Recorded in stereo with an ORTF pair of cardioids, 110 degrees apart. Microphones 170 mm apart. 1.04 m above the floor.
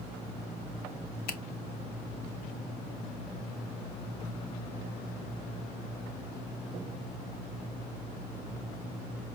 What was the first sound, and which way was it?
A finger snap, 65° left.